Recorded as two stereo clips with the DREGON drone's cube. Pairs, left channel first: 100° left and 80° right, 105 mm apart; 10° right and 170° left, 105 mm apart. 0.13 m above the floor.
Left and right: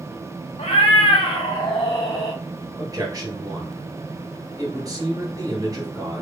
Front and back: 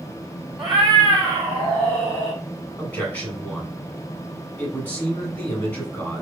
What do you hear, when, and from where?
0.6 s a cat meowing: 80° left, 1.2 m; by 2.4 s 55° left, 2.0 m
2.8 s a man speaking: 75° right, 2.0 m